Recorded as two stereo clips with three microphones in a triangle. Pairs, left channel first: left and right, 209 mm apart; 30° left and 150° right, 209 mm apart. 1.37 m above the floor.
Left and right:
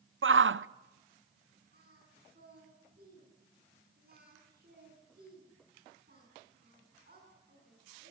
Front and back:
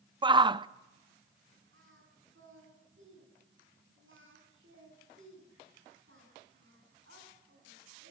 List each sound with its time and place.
0.2 s a shout: 80° right, 0.6 m
1.7 s singing: 130° right, 8.5 m